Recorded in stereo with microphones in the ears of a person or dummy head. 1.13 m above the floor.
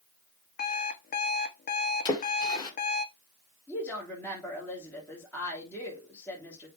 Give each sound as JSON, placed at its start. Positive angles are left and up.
{"t": 0.6, "sound": "an alarm clock", "side_deg": 50, "distance_m": 0.9}
{"t": 2.0, "sound": "a splash", "side_deg": 20, "distance_m": 2.0}
{"t": 3.7, "sound": "a woman speaking", "side_deg": 5, "distance_m": 3.5}